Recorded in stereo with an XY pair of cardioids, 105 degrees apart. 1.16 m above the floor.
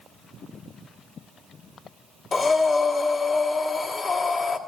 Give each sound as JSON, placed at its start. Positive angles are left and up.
{"t": 2.3, "sound": "breathing", "azimuth_deg": 45, "distance_m": 1.4}